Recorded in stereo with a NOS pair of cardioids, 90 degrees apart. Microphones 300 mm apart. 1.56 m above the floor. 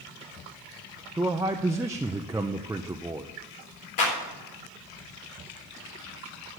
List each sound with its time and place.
1.2 s a man speaking: 10° right, 0.6 m
4.0 s a clap: 70° left, 3.5 m